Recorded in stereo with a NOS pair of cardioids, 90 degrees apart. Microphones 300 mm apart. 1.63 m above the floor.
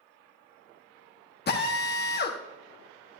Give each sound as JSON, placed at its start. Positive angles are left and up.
{"t": 1.5, "sound": "a drill", "azimuth_deg": 30, "distance_m": 1.6}